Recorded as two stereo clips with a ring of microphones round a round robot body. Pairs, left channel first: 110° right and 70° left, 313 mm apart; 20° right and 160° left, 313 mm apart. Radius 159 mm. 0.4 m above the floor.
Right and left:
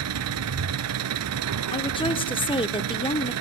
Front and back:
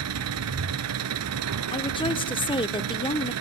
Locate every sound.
0.0 s an engine running: 115° left, 1.6 m
1.7 s a woman speaking: 65° right, 1.0 m